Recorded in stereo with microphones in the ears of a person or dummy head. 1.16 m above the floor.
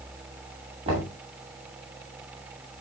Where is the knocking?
30° right (ahead or behind), 7.5 m.